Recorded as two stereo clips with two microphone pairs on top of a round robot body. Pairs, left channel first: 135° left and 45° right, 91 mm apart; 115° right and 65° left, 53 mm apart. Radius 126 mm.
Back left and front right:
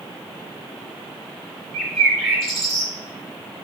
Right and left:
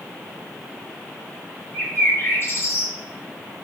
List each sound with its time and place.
1.7 s a bird: 130° right, 1.7 m